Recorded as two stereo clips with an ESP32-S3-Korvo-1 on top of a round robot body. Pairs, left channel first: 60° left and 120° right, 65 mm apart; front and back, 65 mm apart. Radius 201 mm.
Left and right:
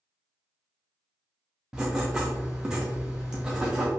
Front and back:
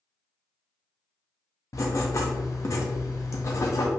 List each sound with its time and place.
1.7 s writing: 40° right, 0.6 m